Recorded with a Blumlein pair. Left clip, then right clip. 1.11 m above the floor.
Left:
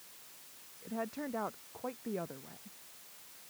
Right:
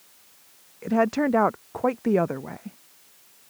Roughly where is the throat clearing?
I don't hear throat clearing.